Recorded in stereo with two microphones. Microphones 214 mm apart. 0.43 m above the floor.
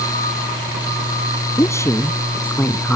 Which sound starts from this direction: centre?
A woman speaking, at 1.6 s.